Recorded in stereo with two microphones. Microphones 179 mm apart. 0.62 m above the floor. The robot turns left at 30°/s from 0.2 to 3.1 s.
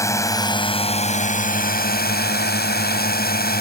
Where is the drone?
160° left; by 3.6 s 75° left.